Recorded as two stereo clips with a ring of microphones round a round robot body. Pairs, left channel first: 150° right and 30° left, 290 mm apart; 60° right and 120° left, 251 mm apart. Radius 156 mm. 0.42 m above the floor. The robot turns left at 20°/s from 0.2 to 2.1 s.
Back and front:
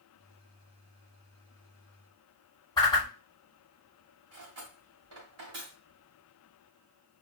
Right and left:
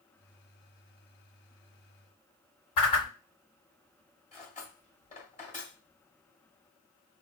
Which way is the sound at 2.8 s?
75° right.